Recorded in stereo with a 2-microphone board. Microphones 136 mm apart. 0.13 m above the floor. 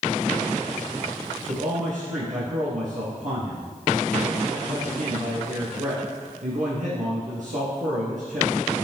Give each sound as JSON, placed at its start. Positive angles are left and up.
{"t": 1.5, "sound": "a man speaking", "side_deg": -60, "distance_m": 3.0}